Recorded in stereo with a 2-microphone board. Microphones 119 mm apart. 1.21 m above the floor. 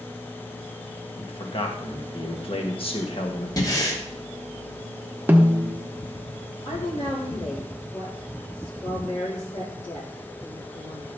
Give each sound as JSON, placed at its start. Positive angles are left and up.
{"t": 1.2, "sound": "a man speaking", "side_deg": 50, "distance_m": 1.6}
{"t": 3.6, "sound": "breathing", "side_deg": 30, "distance_m": 2.5}
{"t": 5.3, "sound": "a snare drum", "side_deg": -15, "distance_m": 1.1}
{"t": 6.7, "sound": "a woman speaking", "side_deg": 75, "distance_m": 3.5}